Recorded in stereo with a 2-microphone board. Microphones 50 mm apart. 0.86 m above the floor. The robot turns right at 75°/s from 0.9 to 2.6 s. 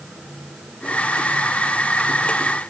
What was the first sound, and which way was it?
Only background noise.